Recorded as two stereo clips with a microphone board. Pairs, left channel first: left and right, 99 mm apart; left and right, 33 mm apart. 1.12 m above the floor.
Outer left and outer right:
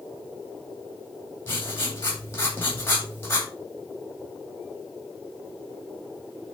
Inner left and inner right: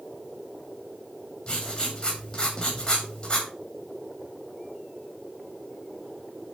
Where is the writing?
25° left (ahead or behind), 2.5 m.